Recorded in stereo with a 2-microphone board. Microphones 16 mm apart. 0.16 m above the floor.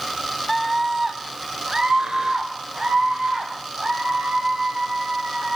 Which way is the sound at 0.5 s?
5° left (ahead or behind).